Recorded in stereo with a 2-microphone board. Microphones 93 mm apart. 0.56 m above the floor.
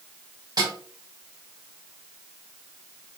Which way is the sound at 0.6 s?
50° right (ahead or behind).